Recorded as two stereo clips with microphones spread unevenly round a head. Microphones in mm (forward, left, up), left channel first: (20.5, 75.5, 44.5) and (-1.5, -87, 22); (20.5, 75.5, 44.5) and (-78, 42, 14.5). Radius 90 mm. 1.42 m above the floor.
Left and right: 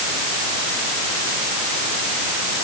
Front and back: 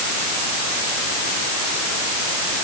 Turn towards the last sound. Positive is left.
No sound to turn to.